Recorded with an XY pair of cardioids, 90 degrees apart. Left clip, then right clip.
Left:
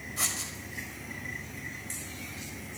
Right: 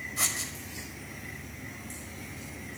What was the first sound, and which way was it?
Writing, 15° right.